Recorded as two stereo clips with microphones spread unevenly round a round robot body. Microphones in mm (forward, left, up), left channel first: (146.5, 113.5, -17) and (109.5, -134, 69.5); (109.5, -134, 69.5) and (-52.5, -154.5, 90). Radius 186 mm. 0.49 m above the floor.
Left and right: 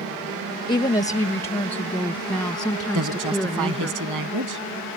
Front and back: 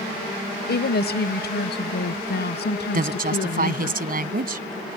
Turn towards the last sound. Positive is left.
turn(degrees=-145)